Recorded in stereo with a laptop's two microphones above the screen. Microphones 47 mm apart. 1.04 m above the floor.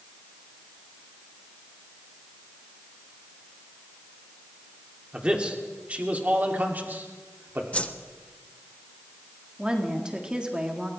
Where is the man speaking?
20° right (ahead or behind), 3 m; by 7.6 s 50° right (ahead or behind), 2.5 m.